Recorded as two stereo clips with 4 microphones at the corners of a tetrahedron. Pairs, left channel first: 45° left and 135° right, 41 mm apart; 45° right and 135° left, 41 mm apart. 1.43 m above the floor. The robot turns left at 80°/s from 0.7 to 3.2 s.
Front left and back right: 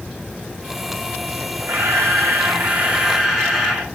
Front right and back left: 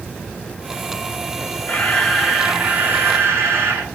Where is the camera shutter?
95° right, 6 m; by 3.9 s 140° left, 6 m.